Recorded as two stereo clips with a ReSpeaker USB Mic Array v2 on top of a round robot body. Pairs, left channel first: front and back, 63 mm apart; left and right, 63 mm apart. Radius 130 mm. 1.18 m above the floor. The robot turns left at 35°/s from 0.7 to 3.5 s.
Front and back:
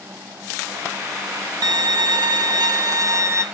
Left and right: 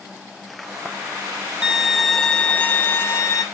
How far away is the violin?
About 0.6 m.